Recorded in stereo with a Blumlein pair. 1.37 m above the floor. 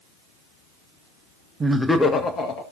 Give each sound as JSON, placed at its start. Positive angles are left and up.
{"t": 1.6, "sound": "laughter", "azimuth_deg": -15, "distance_m": 0.9}